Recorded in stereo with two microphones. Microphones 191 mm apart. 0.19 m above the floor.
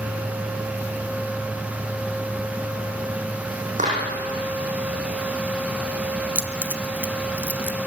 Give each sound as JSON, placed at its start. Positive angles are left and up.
{"t": 3.8, "sound": "a clap", "side_deg": -40, "distance_m": 8.0}
{"t": 6.3, "sound": "keys jangling", "side_deg": -10, "distance_m": 1.2}